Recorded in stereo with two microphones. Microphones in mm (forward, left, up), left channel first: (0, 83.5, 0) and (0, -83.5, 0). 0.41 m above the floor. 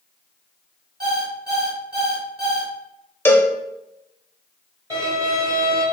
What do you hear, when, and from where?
1.0 s an alarm clock: 75° right (ahead or behind), 1.9 m
3.2 s a cowbell: 15° left (ahead or behind), 0.5 m
4.9 s a violin: 20° right (ahead or behind), 2 m